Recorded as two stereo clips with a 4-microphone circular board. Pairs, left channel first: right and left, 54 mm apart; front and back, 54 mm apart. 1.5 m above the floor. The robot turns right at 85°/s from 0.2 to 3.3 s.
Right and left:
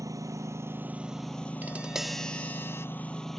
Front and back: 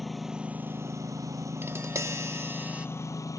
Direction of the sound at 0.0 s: 90° left.